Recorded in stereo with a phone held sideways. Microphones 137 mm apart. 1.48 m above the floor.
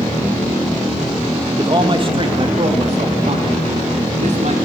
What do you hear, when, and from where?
1.6 s a man speaking: 30° right (ahead or behind), 2 m; by 4.7 s 55° right (ahead or behind), 4.5 m